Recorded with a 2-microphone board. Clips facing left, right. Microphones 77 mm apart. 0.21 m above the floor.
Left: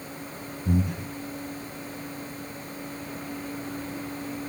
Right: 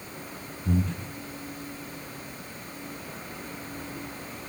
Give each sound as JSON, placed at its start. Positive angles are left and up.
{"t": 0.7, "sound": "breathing", "side_deg": 10, "distance_m": 1.2}